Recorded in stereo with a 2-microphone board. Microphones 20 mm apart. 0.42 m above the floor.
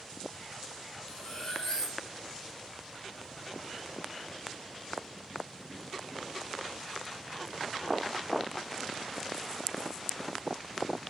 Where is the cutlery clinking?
35° left (ahead or behind), 1.4 m.